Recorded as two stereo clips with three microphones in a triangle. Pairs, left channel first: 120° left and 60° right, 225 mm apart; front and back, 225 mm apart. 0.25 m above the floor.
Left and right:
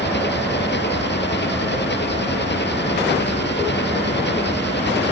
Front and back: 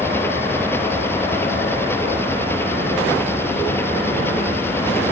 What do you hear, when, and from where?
0.0 s an engine running: 80° left